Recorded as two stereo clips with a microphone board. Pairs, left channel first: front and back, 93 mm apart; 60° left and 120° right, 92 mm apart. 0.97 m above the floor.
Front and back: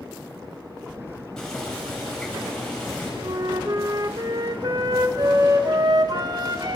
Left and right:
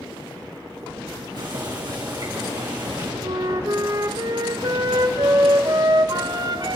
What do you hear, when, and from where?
1.4 s boiling: 80° right, 4.5 m
3.2 s a flute: 150° right, 0.7 m